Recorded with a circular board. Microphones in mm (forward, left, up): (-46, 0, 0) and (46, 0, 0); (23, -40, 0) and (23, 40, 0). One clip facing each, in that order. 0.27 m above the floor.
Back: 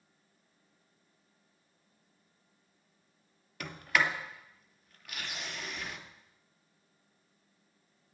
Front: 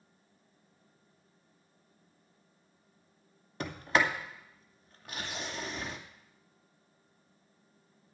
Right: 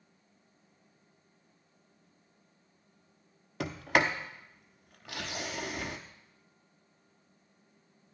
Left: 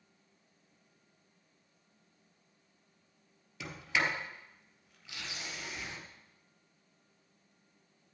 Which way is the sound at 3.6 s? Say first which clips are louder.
Front 2 dB, right 6 dB; 60° right.